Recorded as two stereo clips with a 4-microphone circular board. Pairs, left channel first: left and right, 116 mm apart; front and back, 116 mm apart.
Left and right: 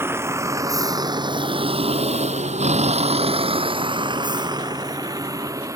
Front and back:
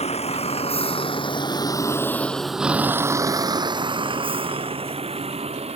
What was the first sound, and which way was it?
A vehicle, 20° right.